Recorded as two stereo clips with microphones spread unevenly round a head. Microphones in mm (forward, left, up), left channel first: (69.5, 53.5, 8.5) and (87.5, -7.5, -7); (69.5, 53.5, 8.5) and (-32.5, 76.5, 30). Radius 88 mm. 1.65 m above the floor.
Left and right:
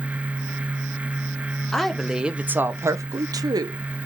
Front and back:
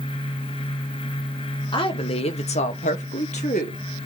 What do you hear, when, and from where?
1.7 s a woman speaking: 25° left, 1.2 m; by 3.8 s 65° right, 1.2 m